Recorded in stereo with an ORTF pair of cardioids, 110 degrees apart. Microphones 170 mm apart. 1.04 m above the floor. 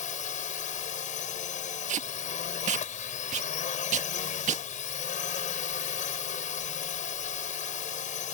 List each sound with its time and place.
0.0 s a drone: 50° left
1.9 s tape being pulled: 45° right